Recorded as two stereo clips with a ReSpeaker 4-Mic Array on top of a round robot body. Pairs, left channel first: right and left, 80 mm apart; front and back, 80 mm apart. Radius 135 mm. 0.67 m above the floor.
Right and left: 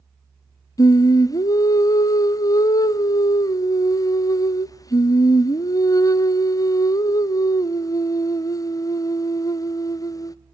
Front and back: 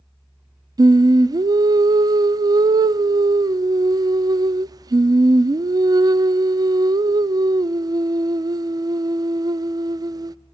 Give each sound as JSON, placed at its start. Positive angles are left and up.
{"t": 0.8, "sound": "singing", "azimuth_deg": -135, "distance_m": 0.5}